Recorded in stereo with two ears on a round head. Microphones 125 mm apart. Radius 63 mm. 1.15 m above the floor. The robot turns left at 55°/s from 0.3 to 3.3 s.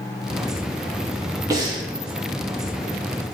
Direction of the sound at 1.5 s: 25° right (ahead or behind).